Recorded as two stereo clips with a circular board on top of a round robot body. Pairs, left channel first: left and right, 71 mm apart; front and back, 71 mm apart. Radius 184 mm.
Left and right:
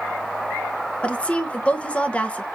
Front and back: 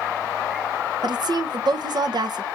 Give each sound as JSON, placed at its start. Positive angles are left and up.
{"t": 1.0, "sound": "a woman speaking", "azimuth_deg": 165, "distance_m": 0.8}